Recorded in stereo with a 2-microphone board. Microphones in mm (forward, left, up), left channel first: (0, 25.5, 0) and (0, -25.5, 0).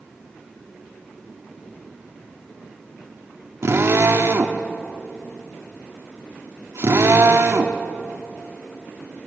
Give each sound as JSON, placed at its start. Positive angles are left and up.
{"t": 3.6, "sound": "a drill", "side_deg": -65, "distance_m": 1.8}